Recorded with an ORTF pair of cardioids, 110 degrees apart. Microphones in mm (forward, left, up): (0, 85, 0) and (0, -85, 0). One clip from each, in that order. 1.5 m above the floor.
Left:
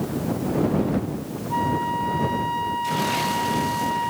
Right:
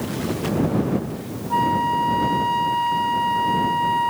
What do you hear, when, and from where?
1.5 s a flute: 15° right